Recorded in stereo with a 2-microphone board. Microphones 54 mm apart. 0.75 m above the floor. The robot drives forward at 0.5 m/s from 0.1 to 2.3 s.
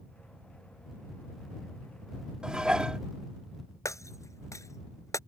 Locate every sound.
2.4 s dishes clattering: 15° right (ahead or behind)
3.9 s breaking glass: 70° left (ahead or behind)